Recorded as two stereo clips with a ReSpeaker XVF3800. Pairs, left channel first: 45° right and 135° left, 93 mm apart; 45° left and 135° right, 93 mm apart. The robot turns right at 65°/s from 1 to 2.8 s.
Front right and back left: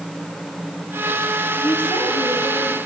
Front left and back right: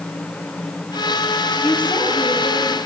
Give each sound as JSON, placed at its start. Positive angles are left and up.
{"t": 1.6, "sound": "a woman speaking", "azimuth_deg": -40, "distance_m": 3.5}